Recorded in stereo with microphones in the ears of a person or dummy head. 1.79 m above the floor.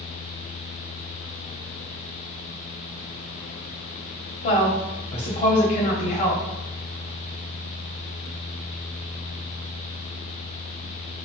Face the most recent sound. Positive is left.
turn(degrees=40)  # may be behind; listen again after turning